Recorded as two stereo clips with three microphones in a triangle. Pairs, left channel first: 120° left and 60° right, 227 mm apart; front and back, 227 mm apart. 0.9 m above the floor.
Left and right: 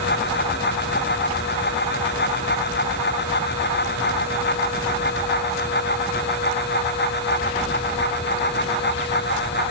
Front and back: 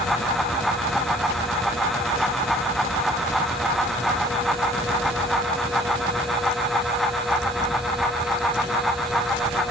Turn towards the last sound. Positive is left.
No sound to turn to.